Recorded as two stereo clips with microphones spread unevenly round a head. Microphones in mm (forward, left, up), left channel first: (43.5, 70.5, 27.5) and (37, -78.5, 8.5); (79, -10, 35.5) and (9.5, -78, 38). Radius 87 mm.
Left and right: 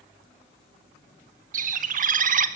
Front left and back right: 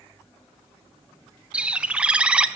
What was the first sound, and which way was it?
A bird, 60° right.